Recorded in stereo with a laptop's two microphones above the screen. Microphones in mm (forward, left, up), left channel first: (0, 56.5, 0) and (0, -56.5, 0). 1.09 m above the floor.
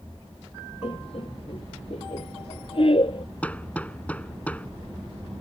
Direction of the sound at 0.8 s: 55° left (ahead or behind).